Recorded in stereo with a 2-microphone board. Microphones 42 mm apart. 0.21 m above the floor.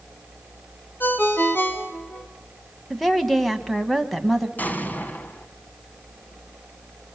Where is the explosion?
40° left (ahead or behind), 1.2 m.